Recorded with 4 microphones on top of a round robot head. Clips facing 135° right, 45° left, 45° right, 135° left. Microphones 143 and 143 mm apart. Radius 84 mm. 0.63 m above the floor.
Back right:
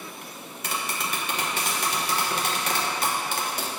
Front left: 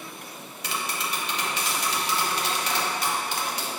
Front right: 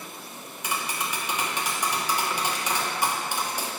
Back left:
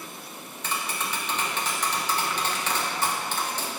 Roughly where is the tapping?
Behind right.